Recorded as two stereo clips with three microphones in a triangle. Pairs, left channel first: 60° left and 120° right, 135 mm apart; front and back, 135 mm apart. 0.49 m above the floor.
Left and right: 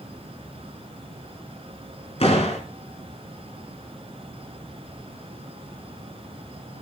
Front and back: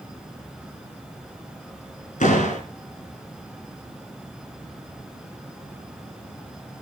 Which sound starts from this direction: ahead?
A door slam, at 2.2 s.